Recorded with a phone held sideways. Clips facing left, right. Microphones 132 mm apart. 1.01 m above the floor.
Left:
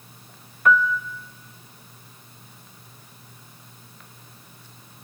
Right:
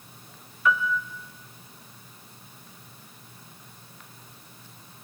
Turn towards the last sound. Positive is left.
turn(degrees=55)  # may be behind; listen again after turning